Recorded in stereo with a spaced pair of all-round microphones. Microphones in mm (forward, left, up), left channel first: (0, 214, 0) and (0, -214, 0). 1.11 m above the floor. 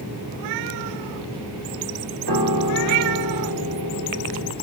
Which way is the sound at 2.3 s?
60° right (ahead or behind).